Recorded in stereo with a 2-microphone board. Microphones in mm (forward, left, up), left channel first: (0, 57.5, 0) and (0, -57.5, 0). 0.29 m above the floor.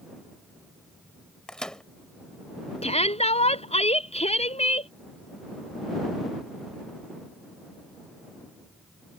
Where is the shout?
65° left (ahead or behind).